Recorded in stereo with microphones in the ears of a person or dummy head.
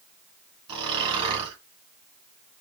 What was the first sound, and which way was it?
Snoring, 35° right (ahead or behind).